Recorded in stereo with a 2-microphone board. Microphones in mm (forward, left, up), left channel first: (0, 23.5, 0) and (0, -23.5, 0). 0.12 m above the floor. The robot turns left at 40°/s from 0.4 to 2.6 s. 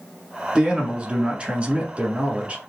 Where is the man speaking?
20° right (ahead or behind), 1.3 m.